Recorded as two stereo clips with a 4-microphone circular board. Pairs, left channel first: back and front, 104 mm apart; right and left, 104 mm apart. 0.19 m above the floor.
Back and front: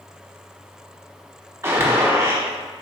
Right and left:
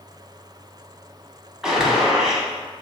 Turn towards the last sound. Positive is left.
turn(degrees=15)